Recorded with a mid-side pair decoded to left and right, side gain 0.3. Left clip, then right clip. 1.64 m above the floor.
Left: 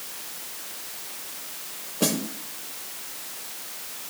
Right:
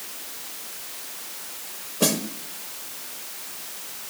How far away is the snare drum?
About 2.5 m.